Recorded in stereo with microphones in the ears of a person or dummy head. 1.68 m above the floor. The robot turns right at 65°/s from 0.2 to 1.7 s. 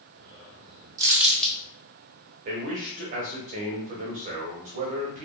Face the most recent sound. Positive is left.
turn(degrees=-35)  # may be behind; listen again after turning